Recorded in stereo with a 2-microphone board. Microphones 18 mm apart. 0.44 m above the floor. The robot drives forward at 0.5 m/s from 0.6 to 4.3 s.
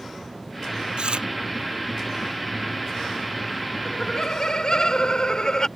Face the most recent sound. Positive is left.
turn(degrees=40)  # may be behind; listen again after turning